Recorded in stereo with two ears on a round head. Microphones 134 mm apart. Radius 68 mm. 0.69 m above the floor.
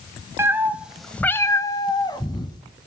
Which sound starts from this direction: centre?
A cat meowing, at 0.4 s.